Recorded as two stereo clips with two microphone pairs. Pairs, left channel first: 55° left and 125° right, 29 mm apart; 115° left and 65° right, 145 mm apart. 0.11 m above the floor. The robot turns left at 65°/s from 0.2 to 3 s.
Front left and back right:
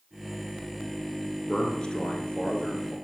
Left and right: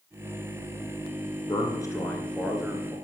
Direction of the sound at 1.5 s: 95° left.